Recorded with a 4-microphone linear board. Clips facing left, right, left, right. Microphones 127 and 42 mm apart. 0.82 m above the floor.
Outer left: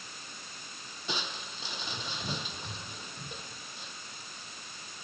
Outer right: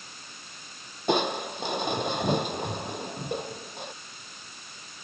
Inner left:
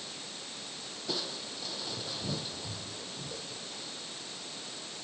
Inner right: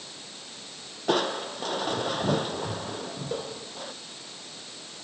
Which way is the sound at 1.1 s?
60° right (ahead or behind).